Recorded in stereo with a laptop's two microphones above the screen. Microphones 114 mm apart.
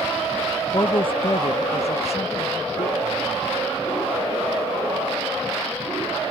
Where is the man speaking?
45° left (ahead or behind); by 3.5 s 75° left (ahead or behind).